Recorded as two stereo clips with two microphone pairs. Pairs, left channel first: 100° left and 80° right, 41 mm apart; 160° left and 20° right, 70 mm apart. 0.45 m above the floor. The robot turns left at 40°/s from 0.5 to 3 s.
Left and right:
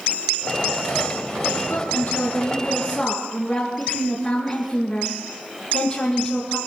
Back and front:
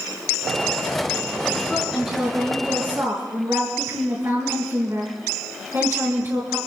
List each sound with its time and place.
1.7 s a woman speaking: 75° left, 5 m; by 6.6 s 25° left, 5 m